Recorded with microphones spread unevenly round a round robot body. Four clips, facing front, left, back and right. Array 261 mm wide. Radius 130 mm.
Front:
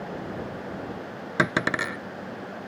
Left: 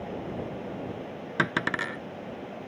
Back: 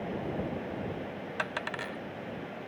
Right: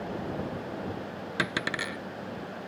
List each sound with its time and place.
1.4 s a dropped coin: 15° left